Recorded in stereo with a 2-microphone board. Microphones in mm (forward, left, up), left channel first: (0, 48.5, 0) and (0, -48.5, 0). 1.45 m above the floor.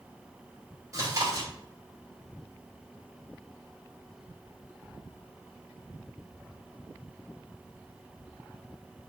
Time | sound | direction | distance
0.9 | chewing | 35° right (ahead or behind) | 3.5 m